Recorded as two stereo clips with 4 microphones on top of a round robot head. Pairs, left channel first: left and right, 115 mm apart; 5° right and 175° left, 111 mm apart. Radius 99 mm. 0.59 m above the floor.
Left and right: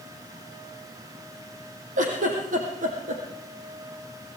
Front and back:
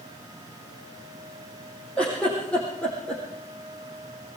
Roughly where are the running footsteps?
No running footsteps in this recording.